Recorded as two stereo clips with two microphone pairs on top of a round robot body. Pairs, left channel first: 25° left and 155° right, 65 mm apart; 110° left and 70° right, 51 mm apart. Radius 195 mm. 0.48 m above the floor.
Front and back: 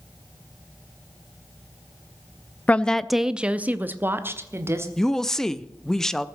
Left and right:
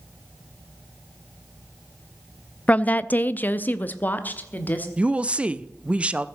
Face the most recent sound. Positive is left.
turn(degrees=-70)